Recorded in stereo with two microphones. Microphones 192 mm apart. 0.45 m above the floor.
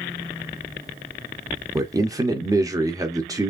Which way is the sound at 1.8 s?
20° right (ahead or behind).